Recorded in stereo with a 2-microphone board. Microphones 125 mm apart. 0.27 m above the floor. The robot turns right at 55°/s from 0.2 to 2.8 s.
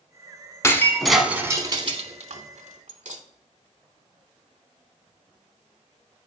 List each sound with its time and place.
0.6 s breaking glass: 25° left (ahead or behind), 0.7 m; by 3.2 s 75° right (ahead or behind), 0.7 m